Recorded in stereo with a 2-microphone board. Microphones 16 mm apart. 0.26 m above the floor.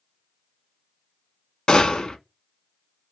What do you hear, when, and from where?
1.7 s a gunshot: 55° left (ahead or behind), 0.5 m